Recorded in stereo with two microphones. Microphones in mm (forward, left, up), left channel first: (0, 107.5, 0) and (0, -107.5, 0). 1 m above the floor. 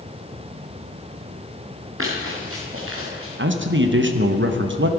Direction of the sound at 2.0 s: 75° right (ahead or behind).